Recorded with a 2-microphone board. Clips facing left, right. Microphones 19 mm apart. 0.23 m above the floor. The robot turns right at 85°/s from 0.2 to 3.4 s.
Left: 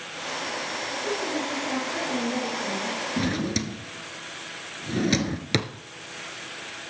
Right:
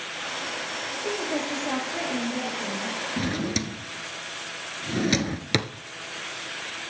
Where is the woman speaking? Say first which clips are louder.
Right 1 dB; 90° right, 6 m; by 3.0 s 75° left, 6 m.